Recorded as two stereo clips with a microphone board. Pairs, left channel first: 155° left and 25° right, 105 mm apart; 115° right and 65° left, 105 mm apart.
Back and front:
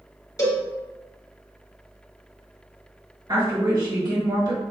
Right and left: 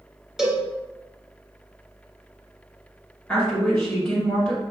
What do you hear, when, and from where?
0.4 s a cowbell: 145° left, 1.1 m
3.3 s a woman speaking: 35° right, 1.9 m